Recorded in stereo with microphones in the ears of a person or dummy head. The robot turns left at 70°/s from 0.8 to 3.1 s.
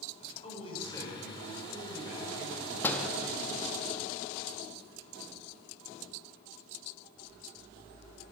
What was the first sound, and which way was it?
A man speaking, 35° left.